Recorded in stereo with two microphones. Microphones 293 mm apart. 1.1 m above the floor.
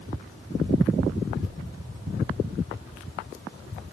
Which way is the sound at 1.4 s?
30° left (ahead or behind).